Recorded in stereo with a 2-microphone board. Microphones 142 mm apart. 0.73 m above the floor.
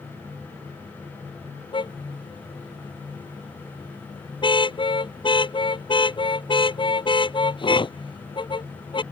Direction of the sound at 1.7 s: 35° left (ahead or behind).